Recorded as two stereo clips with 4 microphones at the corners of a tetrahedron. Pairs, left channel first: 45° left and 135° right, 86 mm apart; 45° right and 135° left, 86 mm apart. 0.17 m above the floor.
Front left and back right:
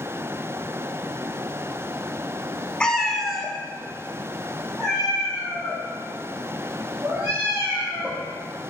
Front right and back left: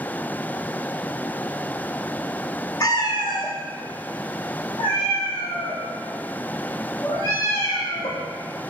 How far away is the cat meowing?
About 0.5 m.